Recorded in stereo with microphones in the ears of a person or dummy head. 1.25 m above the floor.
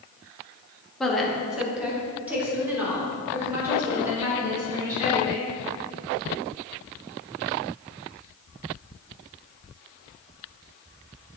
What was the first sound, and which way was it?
A woman speaking, centre (ahead or behind).